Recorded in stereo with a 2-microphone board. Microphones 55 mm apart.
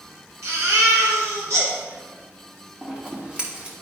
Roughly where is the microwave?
No microwave in this recording.